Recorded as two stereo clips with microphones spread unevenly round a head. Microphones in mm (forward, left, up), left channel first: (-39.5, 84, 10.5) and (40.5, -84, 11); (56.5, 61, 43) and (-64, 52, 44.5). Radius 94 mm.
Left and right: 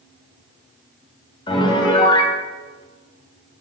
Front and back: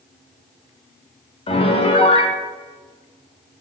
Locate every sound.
1.5 s a piano: 50° left, 1.0 m